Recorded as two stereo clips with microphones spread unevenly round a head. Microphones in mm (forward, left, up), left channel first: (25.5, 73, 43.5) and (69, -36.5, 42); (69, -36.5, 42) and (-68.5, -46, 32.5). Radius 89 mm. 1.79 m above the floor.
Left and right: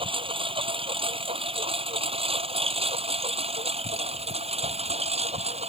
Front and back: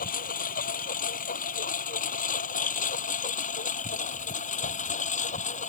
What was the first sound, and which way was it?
A lawn mower, 20° right.